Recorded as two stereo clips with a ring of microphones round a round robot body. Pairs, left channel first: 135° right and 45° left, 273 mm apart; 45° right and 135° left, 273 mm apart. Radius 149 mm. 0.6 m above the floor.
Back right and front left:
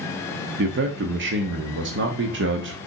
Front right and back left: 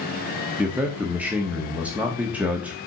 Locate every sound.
0.6 s a man speaking: 50° left, 1.1 m